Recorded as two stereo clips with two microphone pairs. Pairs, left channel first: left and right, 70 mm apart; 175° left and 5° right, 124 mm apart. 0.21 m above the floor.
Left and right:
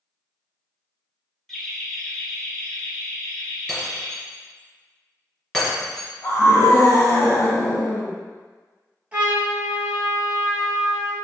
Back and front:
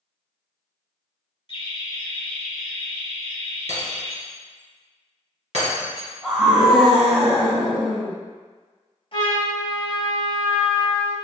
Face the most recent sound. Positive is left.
turn(degrees=-155)